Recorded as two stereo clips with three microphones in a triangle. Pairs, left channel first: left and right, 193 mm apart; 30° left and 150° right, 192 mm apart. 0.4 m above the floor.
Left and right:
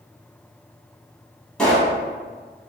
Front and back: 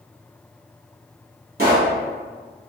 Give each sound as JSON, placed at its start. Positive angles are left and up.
{"t": 1.6, "sound": "a pop", "azimuth_deg": 175, "distance_m": 1.2}